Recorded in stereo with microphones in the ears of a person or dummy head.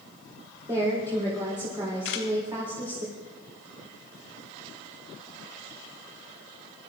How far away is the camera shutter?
About 3.5 m.